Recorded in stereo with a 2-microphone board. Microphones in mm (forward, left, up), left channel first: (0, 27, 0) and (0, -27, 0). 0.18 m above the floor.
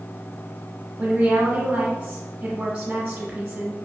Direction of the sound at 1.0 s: 20° right (ahead or behind).